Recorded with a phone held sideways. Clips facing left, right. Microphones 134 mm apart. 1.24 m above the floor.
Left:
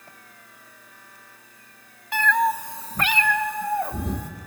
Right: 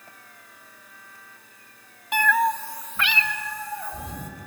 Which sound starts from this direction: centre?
A cat meowing, at 2.1 s.